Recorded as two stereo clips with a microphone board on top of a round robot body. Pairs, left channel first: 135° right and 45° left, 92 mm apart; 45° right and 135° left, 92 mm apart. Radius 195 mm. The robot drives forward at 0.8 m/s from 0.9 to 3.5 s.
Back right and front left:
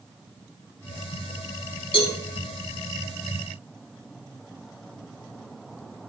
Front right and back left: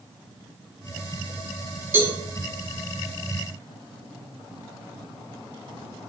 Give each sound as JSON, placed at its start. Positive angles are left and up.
{"t": 1.9, "sound": "a cowbell", "azimuth_deg": -160, "distance_m": 4.0}